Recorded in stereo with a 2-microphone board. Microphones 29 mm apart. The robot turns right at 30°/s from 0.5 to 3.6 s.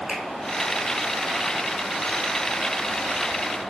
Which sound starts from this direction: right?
A finger snap, at 0.1 s.